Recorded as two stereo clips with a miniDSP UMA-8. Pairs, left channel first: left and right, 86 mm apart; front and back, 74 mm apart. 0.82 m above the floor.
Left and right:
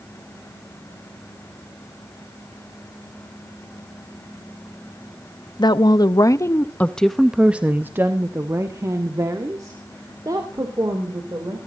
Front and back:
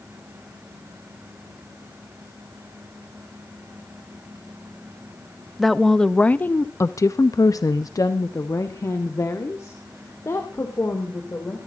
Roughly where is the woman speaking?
Left.